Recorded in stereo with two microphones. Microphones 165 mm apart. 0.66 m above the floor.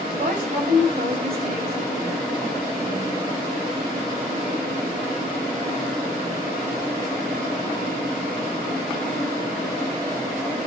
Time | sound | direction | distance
0.2 | a woman speaking | 55° right (ahead or behind) | 3.5 m